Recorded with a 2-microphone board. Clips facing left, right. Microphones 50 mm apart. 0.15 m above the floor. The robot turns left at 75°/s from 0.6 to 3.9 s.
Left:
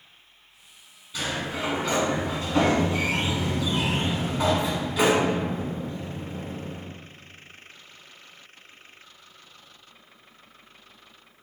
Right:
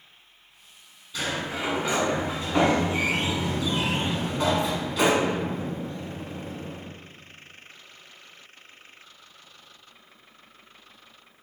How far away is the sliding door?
About 1.1 m.